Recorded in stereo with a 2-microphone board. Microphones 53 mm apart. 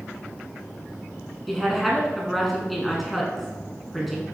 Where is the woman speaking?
Centre (ahead or behind), 1.3 m.